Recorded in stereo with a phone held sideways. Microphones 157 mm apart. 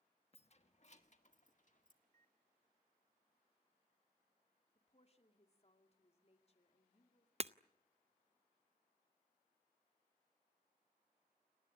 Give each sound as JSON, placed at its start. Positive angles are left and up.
{"t": 0.3, "sound": "keys jangling", "side_deg": 40, "distance_m": 1.1}
{"t": 2.0, "sound": "a microwave", "side_deg": -65, "distance_m": 2.0}
{"t": 4.8, "sound": "a woman speaking", "side_deg": 40, "distance_m": 2.5}
{"t": 7.4, "sound": "breaking glass", "side_deg": -40, "distance_m": 0.5}